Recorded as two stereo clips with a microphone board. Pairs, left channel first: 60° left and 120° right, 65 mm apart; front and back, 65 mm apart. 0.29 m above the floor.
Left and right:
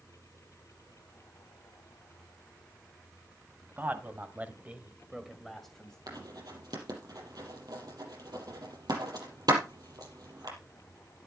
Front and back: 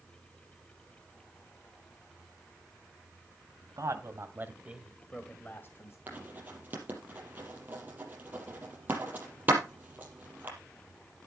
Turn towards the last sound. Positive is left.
turn(degrees=-120)